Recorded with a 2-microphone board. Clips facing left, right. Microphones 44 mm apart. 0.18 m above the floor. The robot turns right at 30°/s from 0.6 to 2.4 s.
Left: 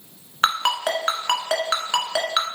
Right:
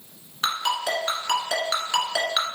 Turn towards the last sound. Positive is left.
turn(degrees=15)  # may be behind; listen again after turning